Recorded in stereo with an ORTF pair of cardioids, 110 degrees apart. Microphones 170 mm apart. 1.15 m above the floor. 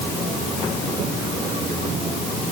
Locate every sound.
Only background noise.